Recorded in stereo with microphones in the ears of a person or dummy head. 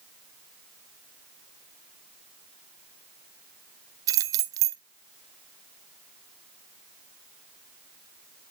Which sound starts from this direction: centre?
Keys jangling, at 4.1 s.